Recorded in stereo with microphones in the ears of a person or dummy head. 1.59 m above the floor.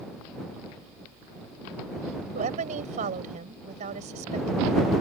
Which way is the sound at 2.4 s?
45° right (ahead or behind).